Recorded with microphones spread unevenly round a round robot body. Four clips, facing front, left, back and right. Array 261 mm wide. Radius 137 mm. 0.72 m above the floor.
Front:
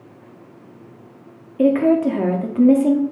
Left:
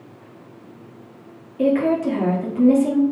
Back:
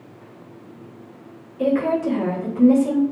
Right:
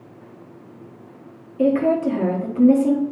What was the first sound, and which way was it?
A woman speaking, 5° right.